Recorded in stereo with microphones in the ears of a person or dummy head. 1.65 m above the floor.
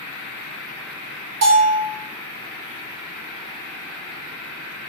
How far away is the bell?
About 0.7 m.